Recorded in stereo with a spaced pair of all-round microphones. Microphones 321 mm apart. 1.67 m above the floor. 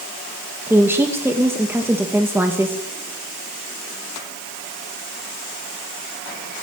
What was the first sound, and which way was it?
A woman speaking, 5° right (ahead or behind).